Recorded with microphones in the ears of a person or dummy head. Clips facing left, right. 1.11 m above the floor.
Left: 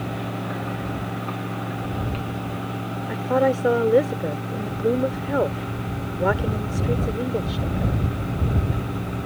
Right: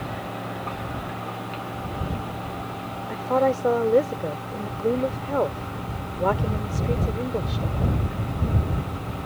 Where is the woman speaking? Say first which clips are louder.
Left 1 dB; 10° left (ahead or behind).